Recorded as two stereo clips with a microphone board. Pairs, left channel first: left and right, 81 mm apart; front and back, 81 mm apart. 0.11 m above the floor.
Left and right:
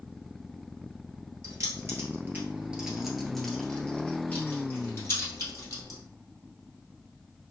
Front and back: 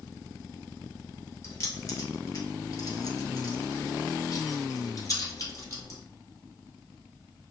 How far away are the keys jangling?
About 1.6 m.